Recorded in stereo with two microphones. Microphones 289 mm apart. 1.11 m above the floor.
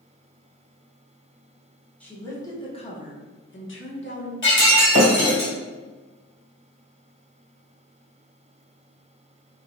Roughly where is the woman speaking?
Centre.